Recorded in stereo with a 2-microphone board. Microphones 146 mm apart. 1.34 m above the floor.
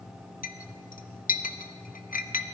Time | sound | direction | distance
0.4 | a clink | 65° left (ahead or behind) | 0.8 m